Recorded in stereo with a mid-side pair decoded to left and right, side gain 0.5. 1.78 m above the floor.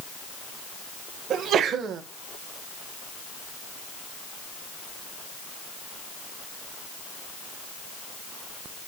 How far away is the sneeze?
About 1.8 m.